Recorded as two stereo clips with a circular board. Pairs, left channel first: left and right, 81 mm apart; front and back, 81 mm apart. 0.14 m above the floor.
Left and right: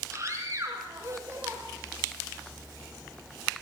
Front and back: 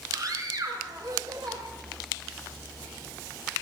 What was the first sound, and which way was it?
A scream, 140° right.